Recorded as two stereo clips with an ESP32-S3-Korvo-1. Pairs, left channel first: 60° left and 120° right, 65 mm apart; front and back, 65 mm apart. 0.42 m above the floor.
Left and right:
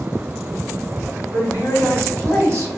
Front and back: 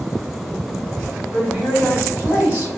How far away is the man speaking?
About 1.6 m.